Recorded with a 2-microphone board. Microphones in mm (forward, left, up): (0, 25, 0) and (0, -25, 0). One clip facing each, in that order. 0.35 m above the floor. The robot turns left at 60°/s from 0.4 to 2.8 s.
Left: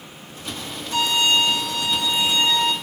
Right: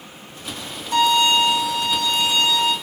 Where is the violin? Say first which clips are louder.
Right 3 dB; 125° right, 0.8 m; by 2.7 s 125° left, 0.8 m.